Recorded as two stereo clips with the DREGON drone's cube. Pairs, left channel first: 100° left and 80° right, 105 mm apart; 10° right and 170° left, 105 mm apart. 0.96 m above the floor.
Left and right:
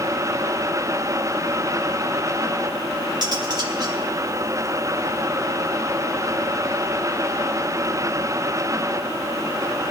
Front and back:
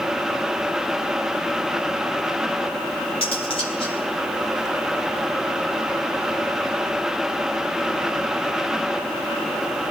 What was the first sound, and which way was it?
Cutlery clinking, 35° right.